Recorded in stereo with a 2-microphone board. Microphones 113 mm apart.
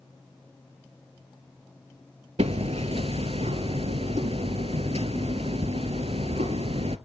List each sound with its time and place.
2.4 s hammering: 65° right (ahead or behind), 0.6 m